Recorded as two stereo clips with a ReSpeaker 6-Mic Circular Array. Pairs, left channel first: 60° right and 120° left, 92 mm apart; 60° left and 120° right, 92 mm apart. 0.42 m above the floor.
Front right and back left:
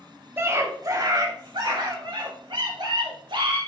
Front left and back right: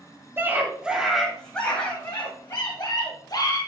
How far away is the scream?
About 2.5 m.